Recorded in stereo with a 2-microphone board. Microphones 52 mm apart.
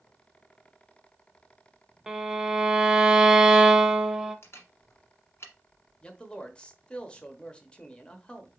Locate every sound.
2.1 s a violin: 10° right (ahead or behind), 0.6 m
4.4 s a camera shutter: 55° left (ahead or behind), 1.4 m
6.0 s a man speaking: 20° left (ahead or behind), 0.8 m